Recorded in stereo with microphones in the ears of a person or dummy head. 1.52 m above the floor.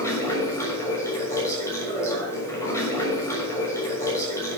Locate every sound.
0.0 s running water: 15° left (ahead or behind), 6.5 m